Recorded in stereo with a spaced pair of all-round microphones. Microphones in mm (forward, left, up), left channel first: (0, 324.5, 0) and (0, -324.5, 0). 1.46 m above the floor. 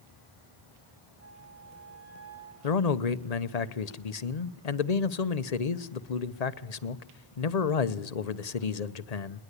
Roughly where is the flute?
Right.